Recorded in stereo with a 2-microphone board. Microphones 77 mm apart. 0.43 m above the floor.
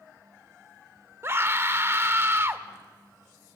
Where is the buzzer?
No buzzer in this recording.